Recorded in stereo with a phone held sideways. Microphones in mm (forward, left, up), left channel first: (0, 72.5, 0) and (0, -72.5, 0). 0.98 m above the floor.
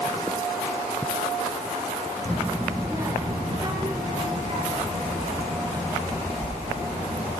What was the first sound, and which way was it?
A child speaking, 15° left (ahead or behind).